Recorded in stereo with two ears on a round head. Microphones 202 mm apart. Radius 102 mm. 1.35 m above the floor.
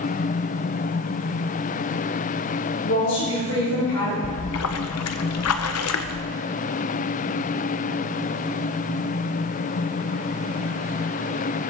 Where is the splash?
75° left (ahead or behind), 0.7 m.